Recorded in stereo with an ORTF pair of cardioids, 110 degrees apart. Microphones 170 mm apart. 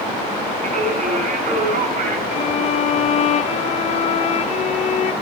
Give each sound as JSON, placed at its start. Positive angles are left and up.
{"t": 0.6, "sound": "singing", "azimuth_deg": -50, "distance_m": 6.0}
{"t": 2.3, "sound": "a violin", "azimuth_deg": 40, "distance_m": 0.7}